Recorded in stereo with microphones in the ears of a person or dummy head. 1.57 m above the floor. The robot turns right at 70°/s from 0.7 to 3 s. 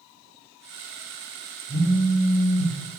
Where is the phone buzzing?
5° right, 0.6 m; by 2.7 s 70° left, 0.6 m.